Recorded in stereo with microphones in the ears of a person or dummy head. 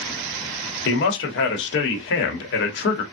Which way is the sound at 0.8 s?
70° left (ahead or behind).